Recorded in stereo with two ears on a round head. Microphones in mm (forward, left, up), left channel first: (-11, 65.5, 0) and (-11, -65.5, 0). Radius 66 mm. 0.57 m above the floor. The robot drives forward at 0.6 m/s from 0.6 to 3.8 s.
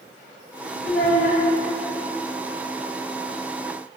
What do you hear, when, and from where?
0.8 s a child speaking: 45° left (ahead or behind), 2 m; by 1.4 s 55° left (ahead or behind), 2.0 m